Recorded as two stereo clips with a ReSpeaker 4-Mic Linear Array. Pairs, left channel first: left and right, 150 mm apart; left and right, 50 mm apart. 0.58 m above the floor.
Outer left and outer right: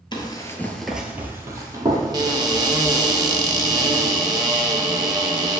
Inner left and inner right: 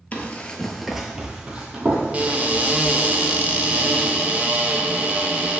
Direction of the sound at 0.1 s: 30° left (ahead or behind).